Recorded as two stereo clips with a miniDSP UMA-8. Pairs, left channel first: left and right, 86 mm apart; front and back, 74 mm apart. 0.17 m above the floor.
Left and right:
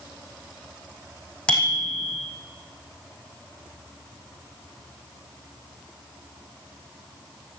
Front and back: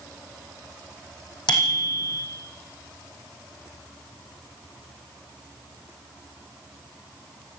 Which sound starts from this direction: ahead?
A bicycle bell, at 1.5 s.